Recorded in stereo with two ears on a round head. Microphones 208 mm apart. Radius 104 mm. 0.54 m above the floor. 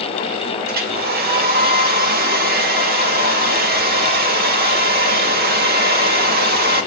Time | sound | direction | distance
0.7 | a hair dryer | 45° right (ahead or behind) | 1.6 m